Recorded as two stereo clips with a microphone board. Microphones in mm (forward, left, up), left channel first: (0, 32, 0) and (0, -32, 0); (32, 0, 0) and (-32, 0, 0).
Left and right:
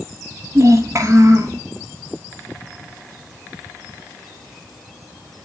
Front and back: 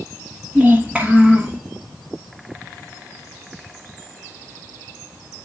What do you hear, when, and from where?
0.6 s a child speaking: 110° right, 1.0 m